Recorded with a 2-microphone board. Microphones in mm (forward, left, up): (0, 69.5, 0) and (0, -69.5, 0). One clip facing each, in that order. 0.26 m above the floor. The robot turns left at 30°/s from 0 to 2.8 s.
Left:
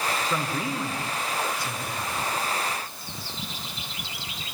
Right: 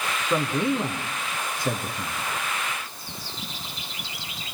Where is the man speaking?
20° right (ahead or behind), 3.5 m; by 2.2 s 65° right (ahead or behind), 3.5 m.